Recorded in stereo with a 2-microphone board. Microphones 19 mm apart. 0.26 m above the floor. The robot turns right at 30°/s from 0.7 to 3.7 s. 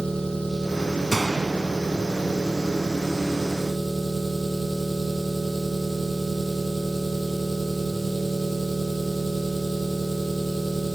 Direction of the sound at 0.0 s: 75° left.